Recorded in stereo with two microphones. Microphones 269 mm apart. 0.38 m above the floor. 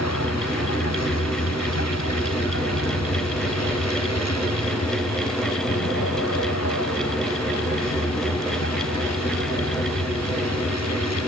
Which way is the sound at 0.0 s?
65° left (ahead or behind).